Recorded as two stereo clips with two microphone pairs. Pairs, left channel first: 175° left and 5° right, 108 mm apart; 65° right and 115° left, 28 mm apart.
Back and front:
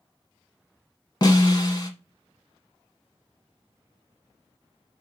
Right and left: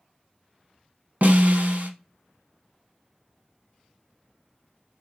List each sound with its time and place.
1.2 s a snare drum: 130° left, 1.0 m